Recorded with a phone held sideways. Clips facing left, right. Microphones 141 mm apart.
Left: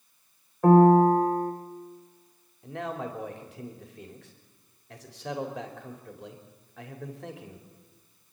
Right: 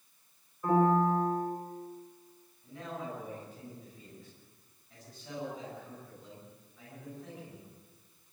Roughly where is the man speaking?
Left.